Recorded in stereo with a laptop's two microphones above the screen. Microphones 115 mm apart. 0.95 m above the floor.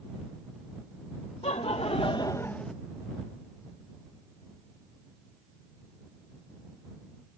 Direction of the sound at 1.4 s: 60° left (ahead or behind).